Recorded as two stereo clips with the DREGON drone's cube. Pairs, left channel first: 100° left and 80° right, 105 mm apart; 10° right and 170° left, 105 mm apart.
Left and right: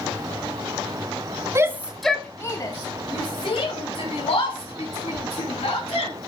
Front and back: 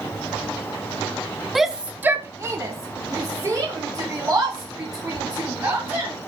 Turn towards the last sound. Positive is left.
turn(degrees=110)